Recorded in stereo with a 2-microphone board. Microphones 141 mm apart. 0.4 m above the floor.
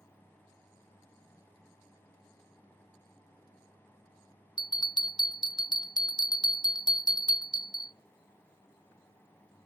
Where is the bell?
30° left (ahead or behind), 0.6 m.